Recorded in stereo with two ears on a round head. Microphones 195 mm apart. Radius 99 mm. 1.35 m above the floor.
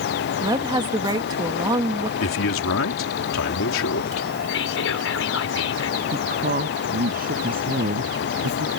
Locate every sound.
0.4 s a woman speaking: 20° right (ahead or behind)
2.2 s a man speaking: 70° left (ahead or behind)
4.5 s whispering: 70° left (ahead or behind)
6.1 s a woman speaking: 45° right (ahead or behind)